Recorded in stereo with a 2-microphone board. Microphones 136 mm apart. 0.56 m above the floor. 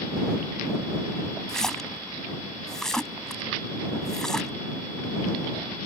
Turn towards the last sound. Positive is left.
turn(degrees=5)  # may be behind; listen again after turning